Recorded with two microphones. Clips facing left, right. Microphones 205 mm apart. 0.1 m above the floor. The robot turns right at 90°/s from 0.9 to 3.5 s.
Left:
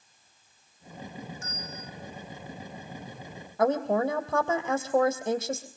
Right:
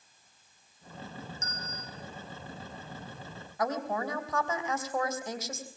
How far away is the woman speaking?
About 3 m.